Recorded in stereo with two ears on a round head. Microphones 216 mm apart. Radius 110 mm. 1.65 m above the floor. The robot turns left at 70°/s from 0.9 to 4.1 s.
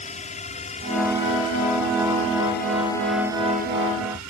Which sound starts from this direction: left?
A drone, at 0.0 s.